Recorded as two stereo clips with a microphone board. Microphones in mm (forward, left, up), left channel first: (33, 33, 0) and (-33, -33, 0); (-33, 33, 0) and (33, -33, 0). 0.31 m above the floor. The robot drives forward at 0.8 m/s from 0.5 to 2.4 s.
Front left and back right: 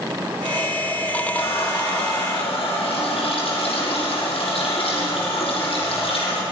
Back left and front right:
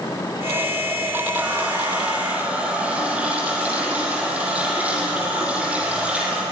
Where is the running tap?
30° left, 7.5 m.